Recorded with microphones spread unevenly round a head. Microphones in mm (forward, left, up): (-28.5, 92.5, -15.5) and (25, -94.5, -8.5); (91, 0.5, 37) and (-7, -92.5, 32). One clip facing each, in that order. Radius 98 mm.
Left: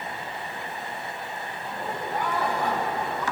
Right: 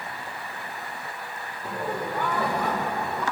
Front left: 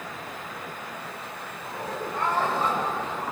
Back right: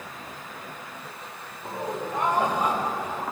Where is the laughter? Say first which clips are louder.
Right 4 dB, back right 3 dB; 65° right, 3.5 m; by 3.2 s 55° right, 5 m.